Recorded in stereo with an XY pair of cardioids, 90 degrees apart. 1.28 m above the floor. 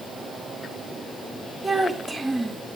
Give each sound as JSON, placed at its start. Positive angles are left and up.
{"t": 1.6, "sound": "a child speaking", "azimuth_deg": -15, "distance_m": 1.6}